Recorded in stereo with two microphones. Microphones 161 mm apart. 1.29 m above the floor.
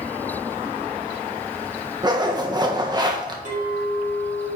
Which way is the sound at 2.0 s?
25° right (ahead or behind).